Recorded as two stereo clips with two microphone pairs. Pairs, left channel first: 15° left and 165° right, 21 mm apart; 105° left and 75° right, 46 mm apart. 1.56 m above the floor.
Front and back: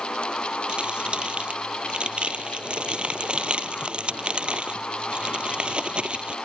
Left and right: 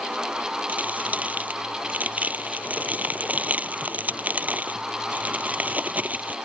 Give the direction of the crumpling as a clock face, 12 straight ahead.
4 o'clock.